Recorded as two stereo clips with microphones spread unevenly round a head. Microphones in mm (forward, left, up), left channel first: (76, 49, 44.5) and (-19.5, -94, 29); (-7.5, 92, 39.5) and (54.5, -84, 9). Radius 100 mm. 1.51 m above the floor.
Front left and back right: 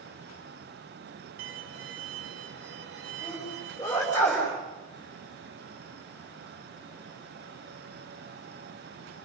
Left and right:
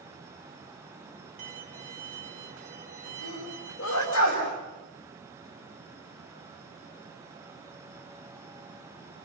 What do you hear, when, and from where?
1.4 s a violin: 120° right, 1.8 m
3.2 s a sneeze: 135° left, 6.5 m